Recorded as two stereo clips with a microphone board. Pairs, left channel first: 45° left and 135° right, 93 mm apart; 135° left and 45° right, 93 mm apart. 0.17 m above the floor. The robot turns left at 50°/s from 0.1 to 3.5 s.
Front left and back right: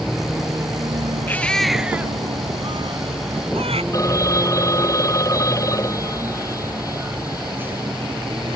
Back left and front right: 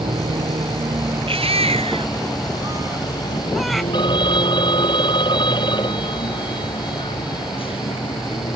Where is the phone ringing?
100° left.